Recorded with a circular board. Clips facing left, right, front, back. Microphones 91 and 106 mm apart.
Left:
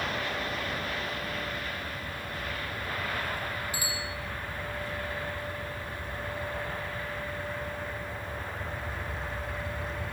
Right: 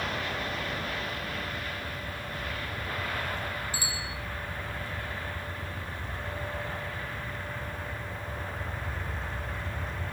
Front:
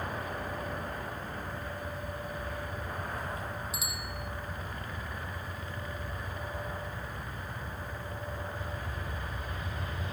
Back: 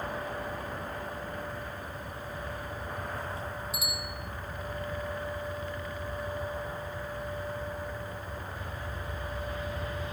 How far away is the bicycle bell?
About 8 m.